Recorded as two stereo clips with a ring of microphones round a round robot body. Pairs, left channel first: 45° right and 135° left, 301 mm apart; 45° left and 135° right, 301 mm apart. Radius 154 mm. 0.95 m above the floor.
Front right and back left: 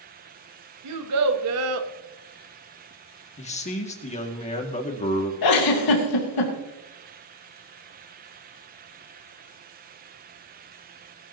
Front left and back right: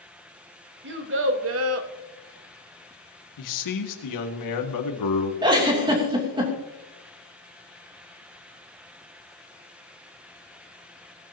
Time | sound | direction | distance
0.8 | a child speaking | 170° left | 1.9 m
3.4 | a man speaking | 25° left | 2 m
5.4 | a giggle | 60° right | 3 m